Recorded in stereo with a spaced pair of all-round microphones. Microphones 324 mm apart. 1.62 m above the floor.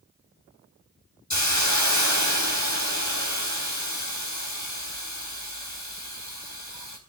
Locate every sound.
1.3 s a hiss: 60° left (ahead or behind), 4.5 m